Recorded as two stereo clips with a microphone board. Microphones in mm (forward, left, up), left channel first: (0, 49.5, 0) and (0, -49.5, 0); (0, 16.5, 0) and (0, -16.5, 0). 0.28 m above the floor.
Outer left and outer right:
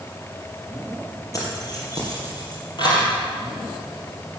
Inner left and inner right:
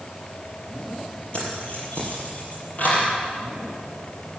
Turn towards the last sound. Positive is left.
turn(degrees=45)  # may be behind; listen again after turning